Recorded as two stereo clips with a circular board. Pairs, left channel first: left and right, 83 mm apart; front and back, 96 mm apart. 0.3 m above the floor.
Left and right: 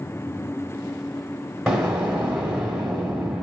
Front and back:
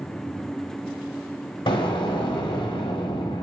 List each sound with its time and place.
1.7 s an explosion: 10° right, 1.4 m